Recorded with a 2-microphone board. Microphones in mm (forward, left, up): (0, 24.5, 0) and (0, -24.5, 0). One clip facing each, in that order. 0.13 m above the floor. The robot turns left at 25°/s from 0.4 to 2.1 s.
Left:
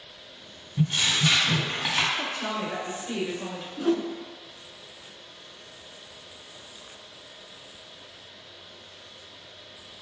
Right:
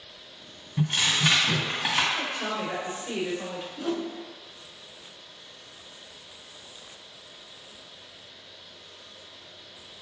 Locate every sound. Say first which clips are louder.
0.8 s tearing paper: even; 145° right, 1.9 m; by 2.0 s 175° right, 1.9 m
2.1 s a woman speaking: even; 15° right (ahead or behind), 1.4 m
3.8 s a whoosh: left 6 dB; 20° left (ahead or behind), 0.6 m